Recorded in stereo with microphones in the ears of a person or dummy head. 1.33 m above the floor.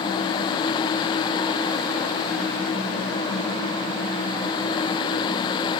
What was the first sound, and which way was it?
Only background noise.